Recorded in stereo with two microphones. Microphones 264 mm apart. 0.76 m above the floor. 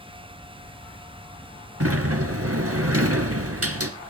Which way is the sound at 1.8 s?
65° right (ahead or behind).